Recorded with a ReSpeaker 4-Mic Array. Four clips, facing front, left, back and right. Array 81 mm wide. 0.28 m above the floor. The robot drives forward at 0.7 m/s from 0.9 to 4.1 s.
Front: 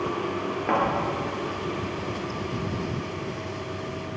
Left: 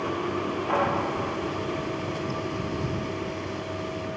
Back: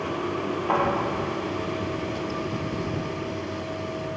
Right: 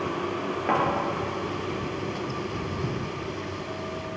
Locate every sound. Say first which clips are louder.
0.7 s a thud: right 2 dB, even; 55° right, 2.5 m